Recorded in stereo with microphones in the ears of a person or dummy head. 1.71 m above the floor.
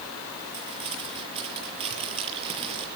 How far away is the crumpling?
About 8 m.